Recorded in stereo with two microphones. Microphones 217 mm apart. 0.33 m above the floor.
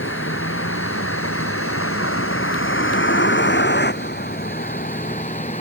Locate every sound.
0.0 s a vehicle: 70° left (ahead or behind); by 5.6 s 35° left (ahead or behind)